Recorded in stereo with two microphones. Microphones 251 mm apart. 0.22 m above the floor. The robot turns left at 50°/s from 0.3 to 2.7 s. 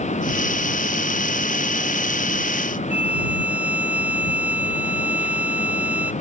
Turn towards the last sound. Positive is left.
turn(degrees=70)  # may be behind; listen again after turning